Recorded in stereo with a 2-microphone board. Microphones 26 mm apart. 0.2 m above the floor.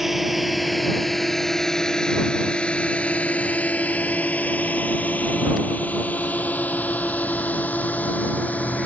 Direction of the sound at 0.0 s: 10° right (ahead or behind).